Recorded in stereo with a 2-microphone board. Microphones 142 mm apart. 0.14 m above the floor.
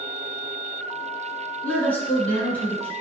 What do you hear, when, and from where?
1.6 s a woman speaking: 10° left (ahead or behind), 1.3 m